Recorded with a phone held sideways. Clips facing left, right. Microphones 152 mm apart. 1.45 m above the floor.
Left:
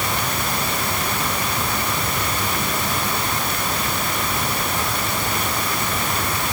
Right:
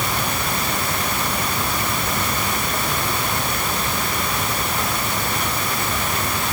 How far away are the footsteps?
No footsteps in this recording.